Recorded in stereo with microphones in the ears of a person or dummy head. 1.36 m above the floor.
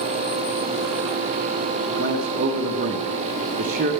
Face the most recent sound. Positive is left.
turn(degrees=-40)  # may be behind; listen again after turning